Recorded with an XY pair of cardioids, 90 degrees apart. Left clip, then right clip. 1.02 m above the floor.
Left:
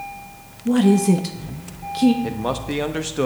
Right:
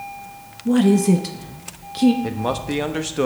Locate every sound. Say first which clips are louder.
0.7 s a woman speaking: even; 5° right, 0.9 m
2.2 s a man speaking: right 1 dB; 10° right, 1.0 m